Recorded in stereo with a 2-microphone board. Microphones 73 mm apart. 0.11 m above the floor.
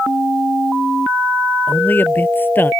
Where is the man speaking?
25° left (ahead or behind).